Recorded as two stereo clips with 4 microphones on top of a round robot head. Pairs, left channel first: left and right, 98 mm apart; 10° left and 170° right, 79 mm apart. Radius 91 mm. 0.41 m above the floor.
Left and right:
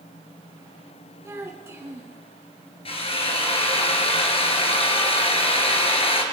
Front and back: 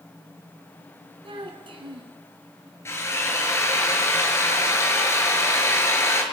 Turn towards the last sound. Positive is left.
turn(degrees=65)